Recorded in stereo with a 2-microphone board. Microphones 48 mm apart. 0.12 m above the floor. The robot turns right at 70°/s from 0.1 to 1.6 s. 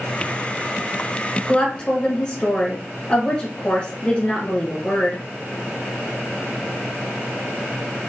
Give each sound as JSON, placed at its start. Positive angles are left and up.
{"t": 1.5, "sound": "a woman speaking", "side_deg": 20, "distance_m": 1.5}